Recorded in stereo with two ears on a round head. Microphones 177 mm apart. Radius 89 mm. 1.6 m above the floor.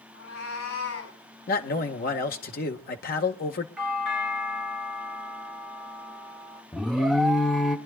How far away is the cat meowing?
About 8 m.